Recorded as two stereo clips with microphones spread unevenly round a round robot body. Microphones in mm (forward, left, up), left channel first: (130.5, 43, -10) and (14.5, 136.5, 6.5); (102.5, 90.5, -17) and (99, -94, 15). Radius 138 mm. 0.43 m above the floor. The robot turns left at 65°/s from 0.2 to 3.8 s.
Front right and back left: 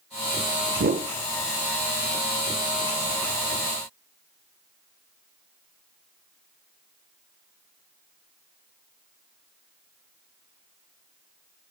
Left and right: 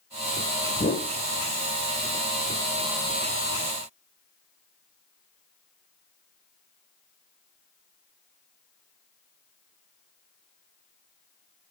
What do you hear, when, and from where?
0.8 s a whoosh: 145° left, 0.7 m; by 1.1 s 125° left, 0.7 m